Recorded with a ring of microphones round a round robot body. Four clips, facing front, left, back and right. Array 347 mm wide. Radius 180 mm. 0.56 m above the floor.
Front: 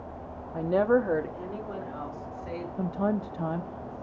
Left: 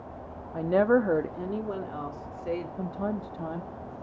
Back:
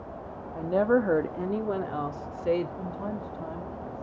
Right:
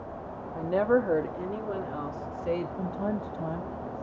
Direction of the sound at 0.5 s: 50° left.